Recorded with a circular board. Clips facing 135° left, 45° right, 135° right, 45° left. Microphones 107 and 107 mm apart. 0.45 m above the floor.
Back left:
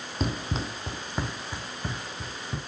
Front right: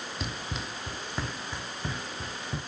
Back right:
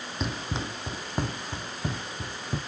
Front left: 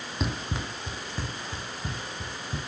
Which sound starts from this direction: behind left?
Running footsteps, at 0.2 s.